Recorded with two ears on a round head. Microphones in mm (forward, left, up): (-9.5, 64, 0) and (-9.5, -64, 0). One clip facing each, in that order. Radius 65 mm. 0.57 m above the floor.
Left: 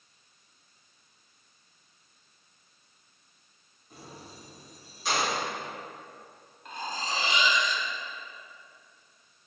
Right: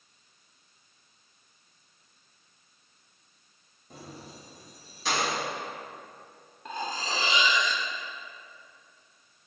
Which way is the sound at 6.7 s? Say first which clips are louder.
Right 2 dB; 65° right (ahead or behind).